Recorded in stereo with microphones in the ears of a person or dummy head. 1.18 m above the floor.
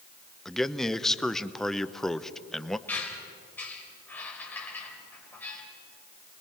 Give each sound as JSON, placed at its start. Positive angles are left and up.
{"t": 0.5, "sound": "a man speaking", "side_deg": 5, "distance_m": 0.7}
{"t": 2.9, "sound": "a squeak", "side_deg": 10, "distance_m": 3.0}